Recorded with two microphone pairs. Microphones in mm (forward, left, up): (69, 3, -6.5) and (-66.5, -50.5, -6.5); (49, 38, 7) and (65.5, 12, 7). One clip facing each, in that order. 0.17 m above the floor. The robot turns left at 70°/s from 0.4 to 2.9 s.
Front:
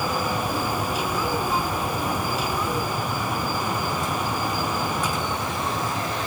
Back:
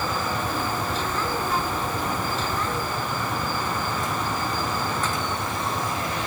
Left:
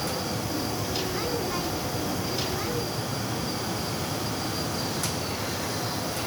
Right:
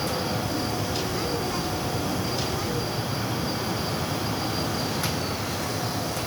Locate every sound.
Only background noise.